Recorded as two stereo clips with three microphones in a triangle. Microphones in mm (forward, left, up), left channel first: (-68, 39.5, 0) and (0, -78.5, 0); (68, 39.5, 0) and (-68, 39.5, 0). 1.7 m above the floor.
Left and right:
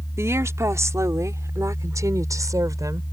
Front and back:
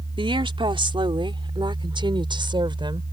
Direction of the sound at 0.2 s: 130° right.